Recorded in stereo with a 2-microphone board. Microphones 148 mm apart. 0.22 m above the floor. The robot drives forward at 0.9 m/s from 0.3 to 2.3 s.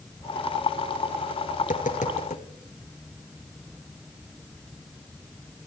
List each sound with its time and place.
1.6 s tapping: 65° left (ahead or behind), 2.5 m; by 2.4 s 55° left (ahead or behind), 2.5 m